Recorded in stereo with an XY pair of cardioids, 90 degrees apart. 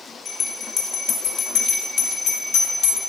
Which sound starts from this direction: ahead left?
A bell, at 0.2 s.